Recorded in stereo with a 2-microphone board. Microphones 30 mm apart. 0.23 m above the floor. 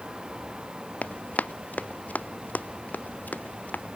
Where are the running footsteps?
50° left (ahead or behind); by 3.9 s 65° left (ahead or behind).